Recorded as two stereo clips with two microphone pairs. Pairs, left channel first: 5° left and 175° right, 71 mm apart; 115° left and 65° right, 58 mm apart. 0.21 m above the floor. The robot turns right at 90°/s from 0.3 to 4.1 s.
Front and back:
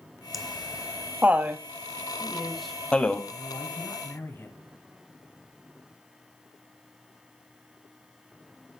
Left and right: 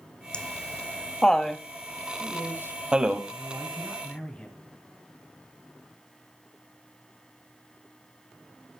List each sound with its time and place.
0.3 s laughter: 90° left, 1.0 m; by 3.2 s 10° right, 1.0 m
2.2 s a man speaking: 125° right, 2 m; by 4.7 s 45° left, 2 m